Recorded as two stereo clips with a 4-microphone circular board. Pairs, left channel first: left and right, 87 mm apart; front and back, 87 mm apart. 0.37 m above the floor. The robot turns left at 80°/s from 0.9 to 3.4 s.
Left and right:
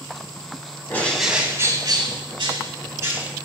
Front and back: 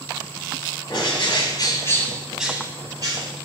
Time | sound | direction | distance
0.9 | a bird | 25° left | 1.5 m